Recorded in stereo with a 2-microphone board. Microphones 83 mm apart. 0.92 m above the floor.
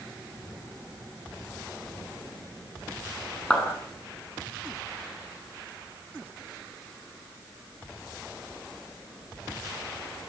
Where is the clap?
10° left (ahead or behind), 9 m.